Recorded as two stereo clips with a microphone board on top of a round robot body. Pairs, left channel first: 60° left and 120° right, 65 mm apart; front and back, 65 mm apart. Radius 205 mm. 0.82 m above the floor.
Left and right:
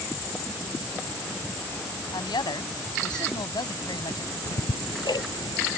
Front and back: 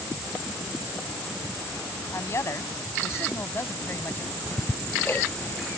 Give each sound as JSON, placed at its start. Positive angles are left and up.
{"t": 2.1, "sound": "a woman speaking", "azimuth_deg": 50}
{"t": 4.5, "sound": "ticking", "azimuth_deg": 65}